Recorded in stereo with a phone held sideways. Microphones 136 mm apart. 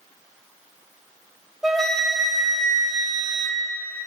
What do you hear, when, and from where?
1.6 s a flute: centre (ahead or behind), 1.2 m